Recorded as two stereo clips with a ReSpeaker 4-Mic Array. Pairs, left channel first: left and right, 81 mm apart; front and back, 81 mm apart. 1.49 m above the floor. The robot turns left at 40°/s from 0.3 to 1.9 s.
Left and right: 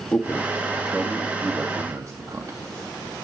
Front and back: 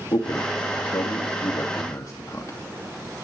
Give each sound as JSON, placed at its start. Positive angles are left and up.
{"t": 0.1, "sound": "a man speaking", "azimuth_deg": 20, "distance_m": 2.5}